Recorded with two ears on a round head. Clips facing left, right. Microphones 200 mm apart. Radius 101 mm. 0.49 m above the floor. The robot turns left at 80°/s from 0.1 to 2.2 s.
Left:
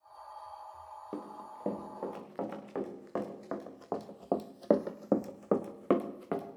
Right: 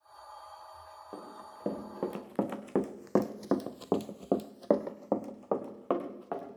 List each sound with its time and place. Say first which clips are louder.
1.1 s running footsteps: left 4 dB; 35° left (ahead or behind), 3 m